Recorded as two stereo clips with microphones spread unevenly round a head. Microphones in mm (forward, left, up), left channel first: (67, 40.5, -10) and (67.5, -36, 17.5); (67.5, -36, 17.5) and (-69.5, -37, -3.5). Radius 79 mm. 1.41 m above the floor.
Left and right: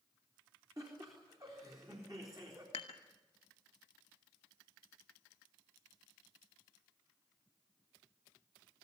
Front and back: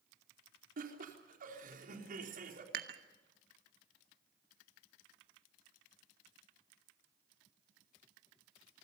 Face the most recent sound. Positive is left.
turn(degrees=145)